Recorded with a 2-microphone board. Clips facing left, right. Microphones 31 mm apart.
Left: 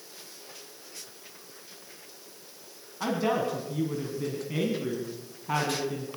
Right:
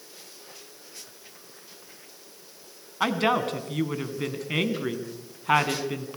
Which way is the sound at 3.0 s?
60° right (ahead or behind).